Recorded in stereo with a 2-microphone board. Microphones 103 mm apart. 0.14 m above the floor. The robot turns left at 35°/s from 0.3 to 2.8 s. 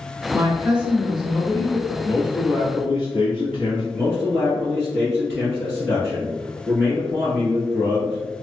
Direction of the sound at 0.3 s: 150° right.